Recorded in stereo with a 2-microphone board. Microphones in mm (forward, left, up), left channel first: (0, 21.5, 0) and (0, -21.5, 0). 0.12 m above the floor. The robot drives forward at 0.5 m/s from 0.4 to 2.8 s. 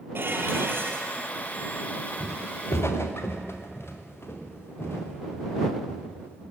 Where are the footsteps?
85° left, 1.3 m; by 6.4 s 65° left (ahead or behind), 7 m.